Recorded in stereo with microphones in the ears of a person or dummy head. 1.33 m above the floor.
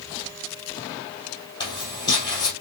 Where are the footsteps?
25° left (ahead or behind), 3 m.